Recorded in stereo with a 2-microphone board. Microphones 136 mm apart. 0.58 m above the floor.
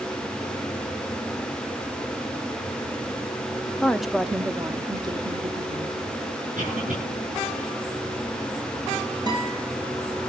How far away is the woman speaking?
About 1.0 m.